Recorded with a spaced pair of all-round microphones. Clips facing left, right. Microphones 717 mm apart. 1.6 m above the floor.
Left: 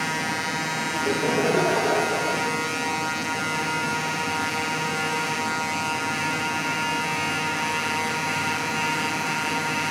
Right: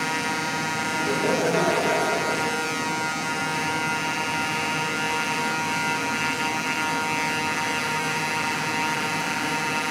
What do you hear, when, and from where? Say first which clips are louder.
0.9 s laughter: left 1 dB; 70° left (ahead or behind), 6 m; by 2.5 s 75° left (ahead or behind), 6.5 m